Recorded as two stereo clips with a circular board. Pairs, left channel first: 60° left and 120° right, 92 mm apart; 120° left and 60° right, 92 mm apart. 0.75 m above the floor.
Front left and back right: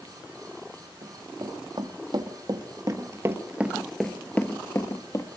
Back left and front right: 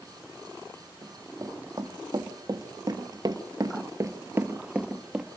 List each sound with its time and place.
1.0 s running footsteps: 110° right, 2.5 m; by 5.3 s 20° left, 1.4 m